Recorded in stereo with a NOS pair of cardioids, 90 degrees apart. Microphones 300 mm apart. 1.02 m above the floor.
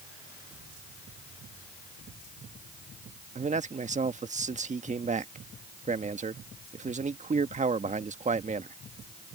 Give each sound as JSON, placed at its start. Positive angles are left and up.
{"t": 3.4, "sound": "a man speaking", "azimuth_deg": -25}